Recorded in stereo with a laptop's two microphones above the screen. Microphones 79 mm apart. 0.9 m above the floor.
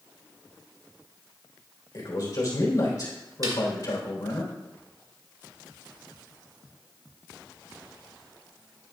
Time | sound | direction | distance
1.9 | a man speaking | 45° left (ahead or behind) | 3 m
3.4 | a snare drum | 45° right (ahead or behind) | 1.2 m